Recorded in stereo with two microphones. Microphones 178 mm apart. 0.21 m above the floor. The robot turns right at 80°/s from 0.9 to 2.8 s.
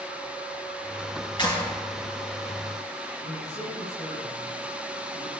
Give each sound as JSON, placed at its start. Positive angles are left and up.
{"t": 1.4, "sound": "a clap", "side_deg": 30, "distance_m": 2.5}
{"t": 3.2, "sound": "a man speaking", "side_deg": 45, "distance_m": 5.0}